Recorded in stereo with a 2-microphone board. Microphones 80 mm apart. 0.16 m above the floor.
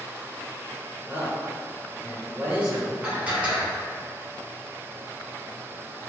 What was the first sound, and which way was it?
A man speaking, 20° right (ahead or behind).